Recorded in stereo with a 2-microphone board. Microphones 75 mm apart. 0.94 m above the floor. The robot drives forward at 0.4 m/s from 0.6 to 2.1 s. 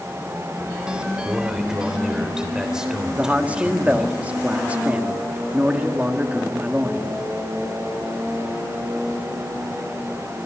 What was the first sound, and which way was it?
A man speaking, 10° right (ahead or behind).